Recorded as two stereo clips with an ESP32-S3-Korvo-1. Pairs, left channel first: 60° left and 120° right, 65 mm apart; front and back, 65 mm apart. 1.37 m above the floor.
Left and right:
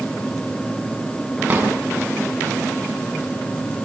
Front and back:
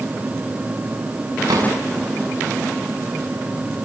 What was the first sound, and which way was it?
A drawer, 175° left.